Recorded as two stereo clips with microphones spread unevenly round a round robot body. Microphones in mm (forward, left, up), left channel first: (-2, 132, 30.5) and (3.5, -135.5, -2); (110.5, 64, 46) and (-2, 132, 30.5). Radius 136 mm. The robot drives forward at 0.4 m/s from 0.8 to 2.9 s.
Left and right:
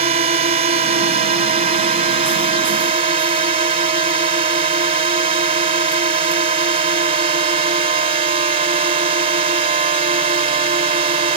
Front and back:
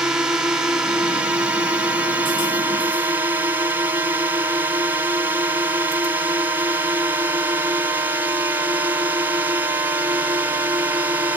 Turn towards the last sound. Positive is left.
turn(degrees=-145)